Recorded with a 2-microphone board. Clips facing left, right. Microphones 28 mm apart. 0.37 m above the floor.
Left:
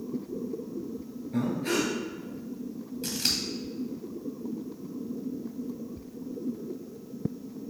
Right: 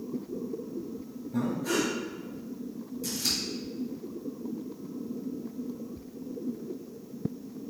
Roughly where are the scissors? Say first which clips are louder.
Left 2 dB; left.